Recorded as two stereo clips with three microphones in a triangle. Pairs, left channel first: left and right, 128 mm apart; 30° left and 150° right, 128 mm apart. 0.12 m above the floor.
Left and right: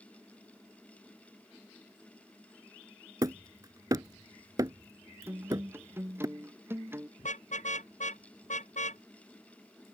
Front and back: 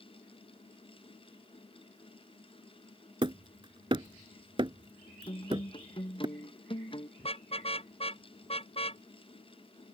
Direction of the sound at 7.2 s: 70° left.